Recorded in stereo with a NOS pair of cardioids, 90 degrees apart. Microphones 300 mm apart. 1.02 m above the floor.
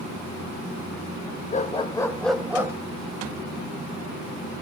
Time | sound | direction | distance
1.5 | a dog barking | 25° left | 1.8 m